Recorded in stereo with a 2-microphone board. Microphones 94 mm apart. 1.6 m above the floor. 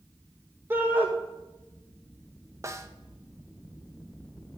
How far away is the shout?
About 1.9 m.